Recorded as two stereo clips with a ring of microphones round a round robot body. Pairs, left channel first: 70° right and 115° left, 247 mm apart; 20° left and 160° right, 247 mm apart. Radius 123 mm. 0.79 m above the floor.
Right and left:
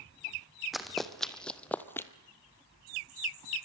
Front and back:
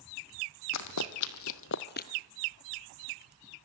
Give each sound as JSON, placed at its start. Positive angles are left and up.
{"t": 0.7, "sound": "running footsteps", "azimuth_deg": 25, "distance_m": 1.7}